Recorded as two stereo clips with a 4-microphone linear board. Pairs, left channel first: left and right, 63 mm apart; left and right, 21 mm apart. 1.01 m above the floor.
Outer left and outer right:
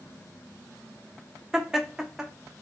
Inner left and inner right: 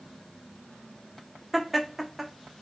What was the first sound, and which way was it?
Laughter, 10° right (ahead or behind).